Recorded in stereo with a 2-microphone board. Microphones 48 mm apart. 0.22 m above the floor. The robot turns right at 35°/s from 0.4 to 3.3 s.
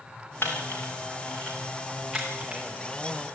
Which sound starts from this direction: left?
A camera shutter, at 0.4 s.